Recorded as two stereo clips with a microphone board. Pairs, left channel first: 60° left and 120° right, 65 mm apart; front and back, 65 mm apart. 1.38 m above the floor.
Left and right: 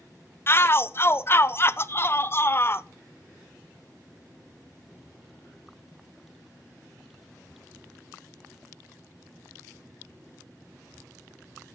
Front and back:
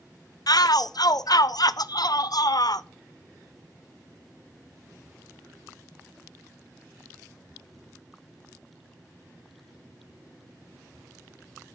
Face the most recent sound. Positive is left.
turn(degrees=10)